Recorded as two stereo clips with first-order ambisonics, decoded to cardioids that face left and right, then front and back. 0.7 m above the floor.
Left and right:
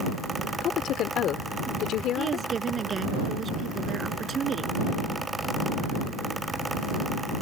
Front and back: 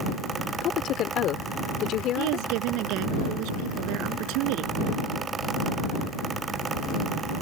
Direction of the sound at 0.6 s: 45° left.